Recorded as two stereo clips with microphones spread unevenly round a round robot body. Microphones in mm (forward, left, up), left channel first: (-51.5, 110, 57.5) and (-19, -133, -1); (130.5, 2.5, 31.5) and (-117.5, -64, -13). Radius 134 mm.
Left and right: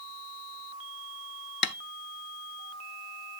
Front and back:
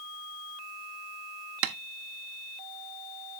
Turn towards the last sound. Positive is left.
turn(degrees=145)